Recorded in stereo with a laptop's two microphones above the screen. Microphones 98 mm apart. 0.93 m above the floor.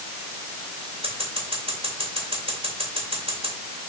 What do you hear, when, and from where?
1.0 s scissors: 80° right, 2.5 m